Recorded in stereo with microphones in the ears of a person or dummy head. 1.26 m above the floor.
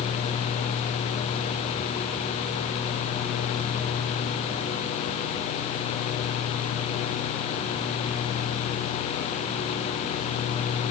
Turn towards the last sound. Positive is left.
No sound to turn to.